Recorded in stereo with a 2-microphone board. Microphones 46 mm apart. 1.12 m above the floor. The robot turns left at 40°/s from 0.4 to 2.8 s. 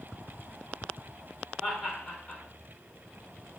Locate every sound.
1.6 s laughter: 5° right (ahead or behind), 3.5 m; by 2.4 s 25° left (ahead or behind), 3.5 m